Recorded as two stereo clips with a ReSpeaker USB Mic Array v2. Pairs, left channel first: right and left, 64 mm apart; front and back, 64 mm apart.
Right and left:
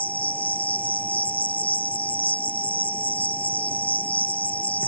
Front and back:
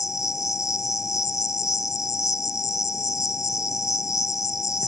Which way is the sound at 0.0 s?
25° right.